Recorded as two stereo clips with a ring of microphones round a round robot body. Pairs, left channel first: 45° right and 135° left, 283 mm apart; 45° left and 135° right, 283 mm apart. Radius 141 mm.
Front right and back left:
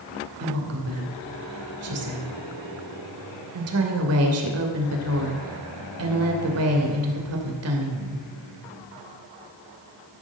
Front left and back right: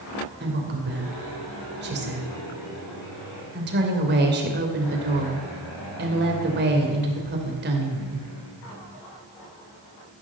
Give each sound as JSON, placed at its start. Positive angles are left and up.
{"t": 0.4, "sound": "a woman speaking", "azimuth_deg": 170, "distance_m": 2.5}